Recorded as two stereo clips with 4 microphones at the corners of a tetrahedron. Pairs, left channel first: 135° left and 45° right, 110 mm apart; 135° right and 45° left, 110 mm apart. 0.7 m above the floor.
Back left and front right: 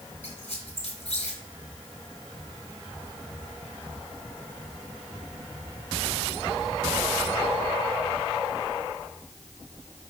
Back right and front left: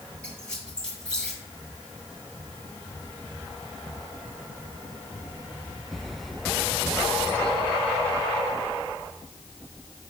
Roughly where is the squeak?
Behind left.